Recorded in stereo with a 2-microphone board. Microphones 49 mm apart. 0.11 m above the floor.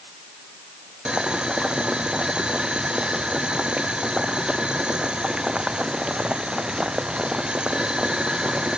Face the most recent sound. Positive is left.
turn(degrees=-15)  # may be behind; listen again after turning